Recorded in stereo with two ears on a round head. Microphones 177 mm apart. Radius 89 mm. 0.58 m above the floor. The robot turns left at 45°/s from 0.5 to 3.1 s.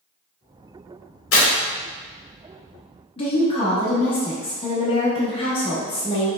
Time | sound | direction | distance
1.3 | tearing paper | 70° left (ahead or behind) | 1.0 m
3.2 | a woman speaking | 25° left (ahead or behind) | 0.8 m